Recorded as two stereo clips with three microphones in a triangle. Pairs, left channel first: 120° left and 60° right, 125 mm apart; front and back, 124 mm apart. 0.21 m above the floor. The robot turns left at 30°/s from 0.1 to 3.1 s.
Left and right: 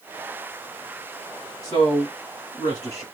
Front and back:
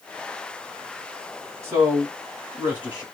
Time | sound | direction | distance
1.6 | a man speaking | 150° left | 1.7 m